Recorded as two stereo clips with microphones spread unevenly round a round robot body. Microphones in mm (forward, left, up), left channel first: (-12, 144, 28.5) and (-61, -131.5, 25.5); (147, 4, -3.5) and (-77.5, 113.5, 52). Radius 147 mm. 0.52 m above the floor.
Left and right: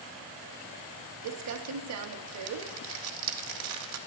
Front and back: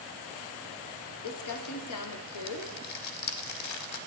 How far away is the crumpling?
About 0.5 m.